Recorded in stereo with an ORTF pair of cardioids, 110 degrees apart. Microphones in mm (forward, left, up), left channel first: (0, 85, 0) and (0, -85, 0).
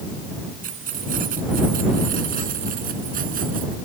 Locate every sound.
0.6 s keys jangling: 55° right